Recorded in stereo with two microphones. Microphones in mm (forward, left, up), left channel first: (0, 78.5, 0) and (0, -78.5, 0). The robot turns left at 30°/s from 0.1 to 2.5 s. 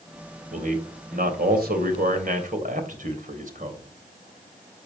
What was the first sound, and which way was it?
A man speaking, 55° right (ahead or behind).